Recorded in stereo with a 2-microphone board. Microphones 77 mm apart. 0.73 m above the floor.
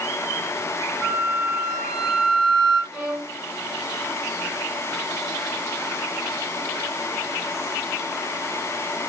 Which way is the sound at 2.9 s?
10° right (ahead or behind).